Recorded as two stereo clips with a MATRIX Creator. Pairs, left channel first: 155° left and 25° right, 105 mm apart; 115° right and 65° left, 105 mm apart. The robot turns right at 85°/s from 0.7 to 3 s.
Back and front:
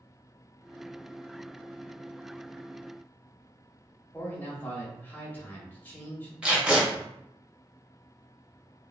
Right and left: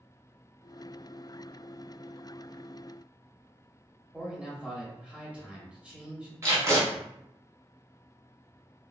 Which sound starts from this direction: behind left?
A man speaking, at 4.1 s.